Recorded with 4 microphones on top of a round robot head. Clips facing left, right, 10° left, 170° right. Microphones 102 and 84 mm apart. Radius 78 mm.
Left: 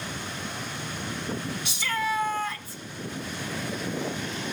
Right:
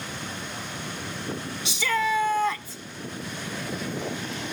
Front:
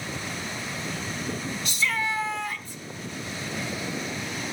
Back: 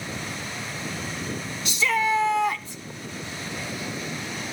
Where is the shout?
125° right, 0.9 m.